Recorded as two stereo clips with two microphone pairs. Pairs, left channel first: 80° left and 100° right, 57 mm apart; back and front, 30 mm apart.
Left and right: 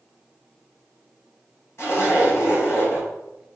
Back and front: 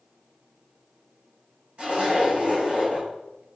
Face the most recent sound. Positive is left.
turn(degrees=45)